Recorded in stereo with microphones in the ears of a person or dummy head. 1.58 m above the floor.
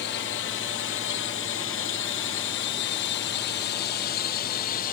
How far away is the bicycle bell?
I don't hear a bicycle bell.